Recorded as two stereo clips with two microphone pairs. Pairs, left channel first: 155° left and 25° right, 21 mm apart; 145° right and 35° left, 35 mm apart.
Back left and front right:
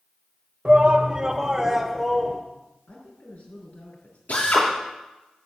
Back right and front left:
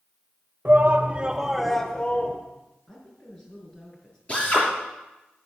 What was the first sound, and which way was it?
A shout, 15° left.